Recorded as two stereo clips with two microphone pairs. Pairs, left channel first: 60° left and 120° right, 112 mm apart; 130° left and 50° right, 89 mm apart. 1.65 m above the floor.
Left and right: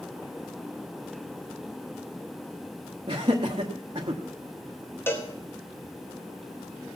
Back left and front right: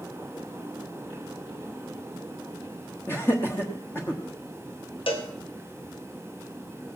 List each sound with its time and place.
3.1 s laughter: 165° right, 1.2 m
5.1 s a cowbell: 130° left, 2 m